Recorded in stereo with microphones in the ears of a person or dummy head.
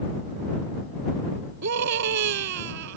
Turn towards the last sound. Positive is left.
turn(degrees=-70)  # may be behind; listen again after turning